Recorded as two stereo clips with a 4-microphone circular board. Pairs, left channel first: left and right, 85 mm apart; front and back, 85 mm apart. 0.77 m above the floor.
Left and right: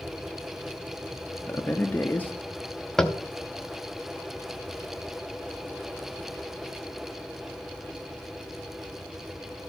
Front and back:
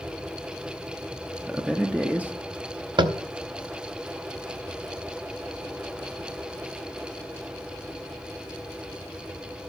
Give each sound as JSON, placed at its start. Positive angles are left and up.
{"t": 1.5, "sound": "a man speaking", "azimuth_deg": 125, "distance_m": 0.5}
{"t": 3.0, "sound": "tapping", "azimuth_deg": 170, "distance_m": 0.6}